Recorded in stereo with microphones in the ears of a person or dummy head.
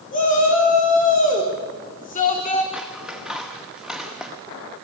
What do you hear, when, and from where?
0.1 s a shout: 40° left (ahead or behind), 4.5 m
2.7 s scissors: centre (ahead or behind), 0.9 m